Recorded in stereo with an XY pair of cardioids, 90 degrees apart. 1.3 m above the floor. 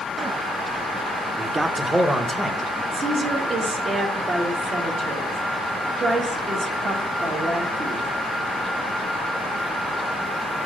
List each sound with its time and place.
1.4 s a man speaking: 20° right, 0.8 m; by 2.8 s 15° right, 1.6 m
2.9 s a woman speaking: 45° right, 1.7 m